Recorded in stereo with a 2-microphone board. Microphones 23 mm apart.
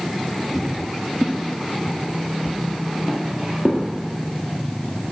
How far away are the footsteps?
About 1.6 m.